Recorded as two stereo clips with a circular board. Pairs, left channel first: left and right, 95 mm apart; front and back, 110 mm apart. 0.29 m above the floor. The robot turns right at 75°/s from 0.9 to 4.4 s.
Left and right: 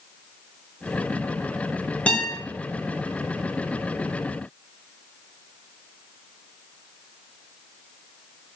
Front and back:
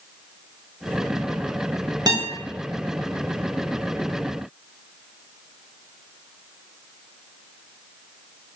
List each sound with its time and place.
2.1 s a guitar: 160° left, 0.9 m; by 2.3 s straight behind, 0.9 m